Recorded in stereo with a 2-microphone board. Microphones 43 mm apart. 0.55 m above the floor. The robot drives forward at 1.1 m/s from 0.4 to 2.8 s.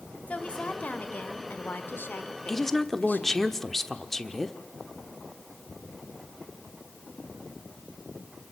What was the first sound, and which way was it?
A woman speaking, 35° left (ahead or behind).